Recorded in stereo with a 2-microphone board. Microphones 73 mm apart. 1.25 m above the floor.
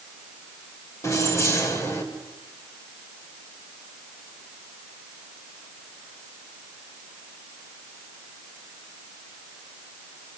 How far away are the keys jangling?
About 4.5 m.